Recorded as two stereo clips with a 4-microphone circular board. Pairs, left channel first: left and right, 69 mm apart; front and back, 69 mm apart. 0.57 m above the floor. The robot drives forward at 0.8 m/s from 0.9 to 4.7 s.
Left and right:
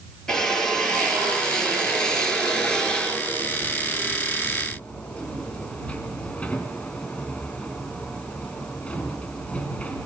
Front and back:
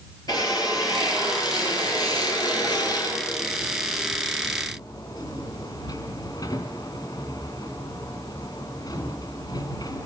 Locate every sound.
0.3 s a drill: 10° left, 5.5 m; by 10.1 s 20° left, 2.5 m